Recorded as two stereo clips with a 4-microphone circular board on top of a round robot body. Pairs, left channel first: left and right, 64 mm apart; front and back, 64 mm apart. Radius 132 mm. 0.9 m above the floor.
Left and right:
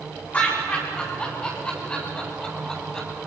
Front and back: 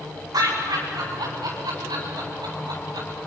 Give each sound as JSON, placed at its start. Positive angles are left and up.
{"t": 0.3, "sound": "laughter", "azimuth_deg": 155, "distance_m": 9.0}